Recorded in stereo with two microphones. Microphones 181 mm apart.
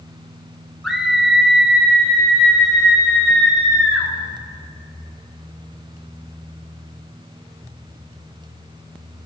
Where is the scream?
Centre (ahead or behind), 3.5 m.